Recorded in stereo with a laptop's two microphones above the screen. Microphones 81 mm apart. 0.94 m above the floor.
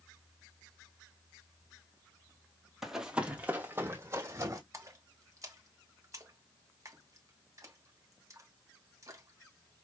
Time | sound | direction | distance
2.8 | running footsteps | 5° right (ahead or behind) | 1.2 m
4.7 | a splash | 40° right (ahead or behind) | 1.2 m